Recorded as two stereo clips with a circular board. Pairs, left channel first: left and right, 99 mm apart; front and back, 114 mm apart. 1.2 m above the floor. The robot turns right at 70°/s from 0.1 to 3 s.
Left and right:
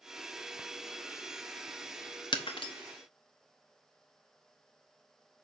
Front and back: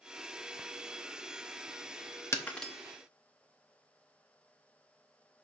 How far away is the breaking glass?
About 0.8 m.